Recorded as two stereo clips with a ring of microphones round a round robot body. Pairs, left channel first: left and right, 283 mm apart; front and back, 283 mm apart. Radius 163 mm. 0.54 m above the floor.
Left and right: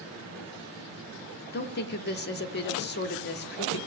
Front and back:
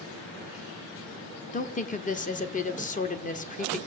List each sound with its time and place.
1.5 s a woman speaking: 55° left, 1.0 m